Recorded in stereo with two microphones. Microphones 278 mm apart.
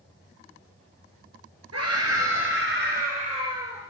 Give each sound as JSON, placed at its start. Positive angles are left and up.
{"t": 1.7, "sound": "a scream", "side_deg": -65, "distance_m": 3.0}